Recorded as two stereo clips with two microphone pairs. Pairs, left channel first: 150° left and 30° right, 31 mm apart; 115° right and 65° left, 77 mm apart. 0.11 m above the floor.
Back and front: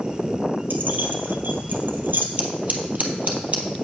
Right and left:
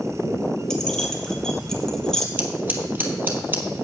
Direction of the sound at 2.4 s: 5° left.